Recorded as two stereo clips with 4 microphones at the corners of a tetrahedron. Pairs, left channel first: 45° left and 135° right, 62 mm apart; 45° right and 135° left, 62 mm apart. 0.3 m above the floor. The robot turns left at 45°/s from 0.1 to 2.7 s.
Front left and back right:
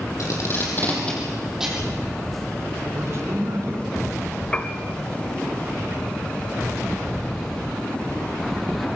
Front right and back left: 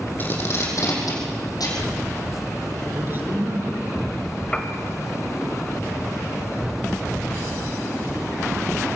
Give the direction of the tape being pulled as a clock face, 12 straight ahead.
12 o'clock.